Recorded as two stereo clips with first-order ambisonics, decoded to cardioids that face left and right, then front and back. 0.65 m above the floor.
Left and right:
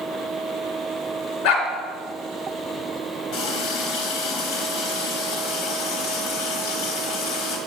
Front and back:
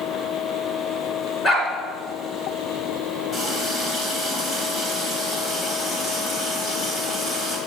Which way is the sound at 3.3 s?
65° left.